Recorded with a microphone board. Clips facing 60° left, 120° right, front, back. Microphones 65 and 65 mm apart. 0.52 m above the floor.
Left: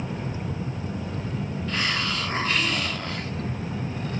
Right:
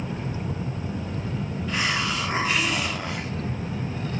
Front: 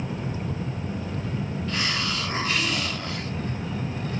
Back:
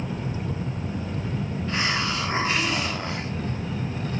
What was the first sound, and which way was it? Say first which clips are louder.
A hiss: right 2 dB, back 3 dB; 175° left.